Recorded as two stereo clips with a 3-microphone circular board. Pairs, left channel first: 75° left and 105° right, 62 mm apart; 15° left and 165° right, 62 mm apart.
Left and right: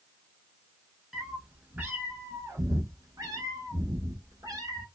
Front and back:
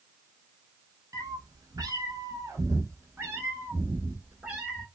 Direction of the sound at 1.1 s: 175° left.